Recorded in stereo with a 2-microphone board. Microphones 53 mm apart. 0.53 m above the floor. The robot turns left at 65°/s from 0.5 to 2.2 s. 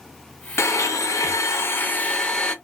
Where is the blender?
120° left, 0.6 m; by 2.5 s 15° left, 0.6 m.